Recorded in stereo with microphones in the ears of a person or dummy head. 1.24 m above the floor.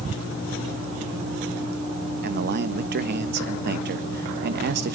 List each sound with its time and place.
2.2 s a man speaking: 50° right (ahead or behind), 1.2 m